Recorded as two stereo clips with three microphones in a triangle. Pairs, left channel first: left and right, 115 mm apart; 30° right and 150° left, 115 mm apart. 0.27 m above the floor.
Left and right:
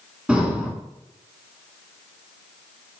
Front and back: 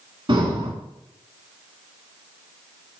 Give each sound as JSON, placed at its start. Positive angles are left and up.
{"t": 0.3, "sound": "breathing", "azimuth_deg": -170, "distance_m": 0.9}